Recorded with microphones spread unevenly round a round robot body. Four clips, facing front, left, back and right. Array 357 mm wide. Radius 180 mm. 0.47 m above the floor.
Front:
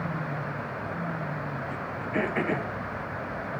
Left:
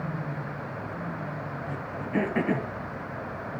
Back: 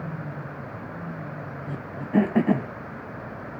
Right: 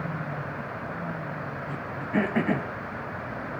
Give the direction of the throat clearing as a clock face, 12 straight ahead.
6 o'clock.